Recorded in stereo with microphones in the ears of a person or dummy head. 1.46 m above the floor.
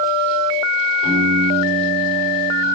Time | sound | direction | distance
1.0 | a piano | 80° left | 8.5 m